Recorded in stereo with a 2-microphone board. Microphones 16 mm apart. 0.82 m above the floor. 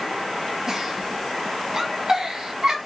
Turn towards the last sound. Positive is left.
turn(degrees=-25)  # may be behind; listen again after turning